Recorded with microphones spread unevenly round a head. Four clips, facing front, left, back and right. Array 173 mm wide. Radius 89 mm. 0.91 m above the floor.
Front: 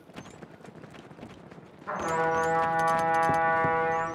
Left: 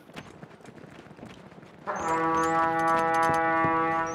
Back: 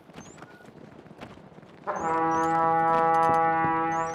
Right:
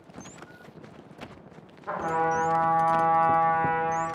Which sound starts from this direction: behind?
A trumpet, at 1.9 s.